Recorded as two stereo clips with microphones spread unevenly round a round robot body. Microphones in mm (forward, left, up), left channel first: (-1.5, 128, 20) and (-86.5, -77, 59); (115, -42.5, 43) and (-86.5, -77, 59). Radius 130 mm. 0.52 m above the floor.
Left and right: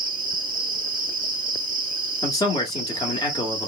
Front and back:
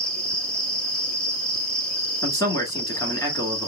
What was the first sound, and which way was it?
An insect, 70° right.